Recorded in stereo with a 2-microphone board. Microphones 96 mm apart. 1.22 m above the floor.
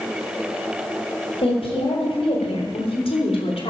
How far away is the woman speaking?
About 5.5 m.